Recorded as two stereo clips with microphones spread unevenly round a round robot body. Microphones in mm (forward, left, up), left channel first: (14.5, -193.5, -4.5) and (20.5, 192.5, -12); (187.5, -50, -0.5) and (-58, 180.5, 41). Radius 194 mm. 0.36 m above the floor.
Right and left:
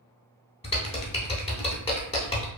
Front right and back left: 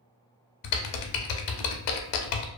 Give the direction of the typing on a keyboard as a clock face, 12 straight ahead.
1 o'clock.